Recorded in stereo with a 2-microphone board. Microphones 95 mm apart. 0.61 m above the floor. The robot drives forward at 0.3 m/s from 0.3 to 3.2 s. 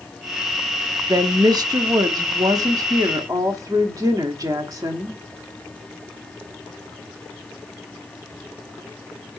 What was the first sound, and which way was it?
A woman speaking, 45° right (ahead or behind).